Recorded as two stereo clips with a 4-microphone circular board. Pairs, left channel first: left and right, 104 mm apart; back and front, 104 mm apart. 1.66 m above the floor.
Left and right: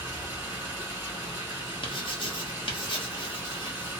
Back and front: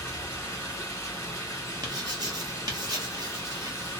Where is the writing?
50° left, 0.9 m.